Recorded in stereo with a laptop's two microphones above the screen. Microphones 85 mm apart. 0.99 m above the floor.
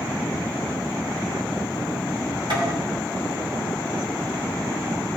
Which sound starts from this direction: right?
Tapping, at 2.5 s.